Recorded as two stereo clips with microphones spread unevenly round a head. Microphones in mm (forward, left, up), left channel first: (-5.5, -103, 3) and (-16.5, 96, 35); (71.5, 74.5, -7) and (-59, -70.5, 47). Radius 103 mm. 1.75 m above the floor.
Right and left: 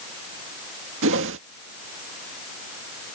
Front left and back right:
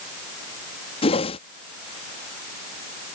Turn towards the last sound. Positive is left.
turn(degrees=115)